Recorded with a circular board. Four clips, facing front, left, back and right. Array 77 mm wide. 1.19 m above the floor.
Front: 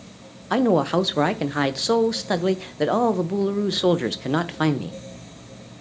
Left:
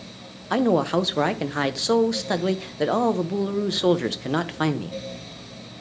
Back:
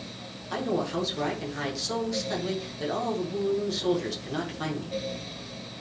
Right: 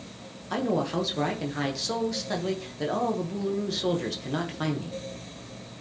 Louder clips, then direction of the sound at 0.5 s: Left 7 dB, front 10 dB; 35° left.